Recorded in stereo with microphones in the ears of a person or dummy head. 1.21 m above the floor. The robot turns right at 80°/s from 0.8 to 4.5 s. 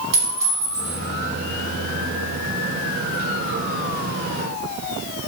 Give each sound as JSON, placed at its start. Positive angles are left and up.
{"t": 0.1, "sound": "a clink", "side_deg": -25, "distance_m": 1.7}